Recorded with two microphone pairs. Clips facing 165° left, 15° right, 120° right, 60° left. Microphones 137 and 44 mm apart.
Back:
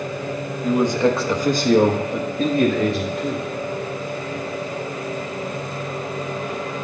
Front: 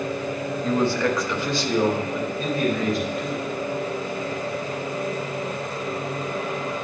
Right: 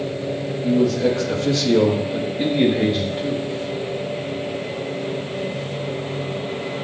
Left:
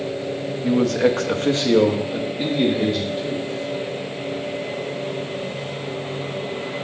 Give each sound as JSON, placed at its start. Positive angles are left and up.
{"t": 0.6, "sound": "a man speaking", "azimuth_deg": 80, "distance_m": 0.8}